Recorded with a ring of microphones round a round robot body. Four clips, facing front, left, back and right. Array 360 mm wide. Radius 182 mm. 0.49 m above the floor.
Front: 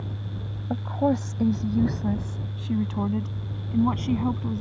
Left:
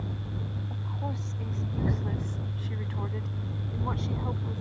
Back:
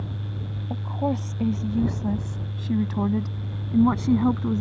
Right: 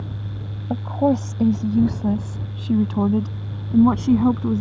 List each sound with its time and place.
0.7 s a woman speaking: 70° right; by 4.6 s 105° right